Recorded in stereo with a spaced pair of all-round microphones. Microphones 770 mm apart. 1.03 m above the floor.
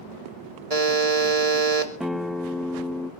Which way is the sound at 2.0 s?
Centre (ahead or behind).